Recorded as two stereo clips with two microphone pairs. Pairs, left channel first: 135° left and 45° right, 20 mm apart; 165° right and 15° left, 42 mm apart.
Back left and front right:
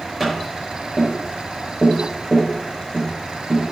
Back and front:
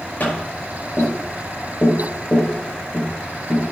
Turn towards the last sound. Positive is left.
turn(degrees=-125)